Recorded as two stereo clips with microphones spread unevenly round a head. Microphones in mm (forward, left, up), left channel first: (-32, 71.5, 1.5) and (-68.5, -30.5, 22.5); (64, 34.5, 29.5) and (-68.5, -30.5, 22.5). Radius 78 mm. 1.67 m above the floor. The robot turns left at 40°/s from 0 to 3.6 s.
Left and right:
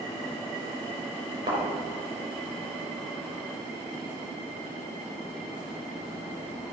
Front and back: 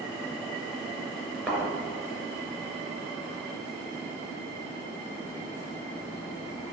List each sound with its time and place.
1.5 s a thud: 70° right, 3.5 m; by 1.6 s 75° right, 3.5 m